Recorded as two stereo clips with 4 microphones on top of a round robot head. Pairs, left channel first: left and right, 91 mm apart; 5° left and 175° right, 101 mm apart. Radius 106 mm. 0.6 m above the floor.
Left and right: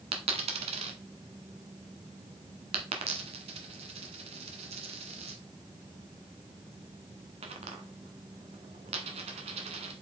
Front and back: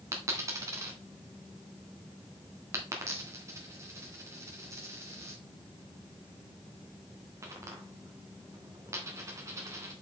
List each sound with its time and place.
0.1 s a dropped coin: 110° right, 1.1 m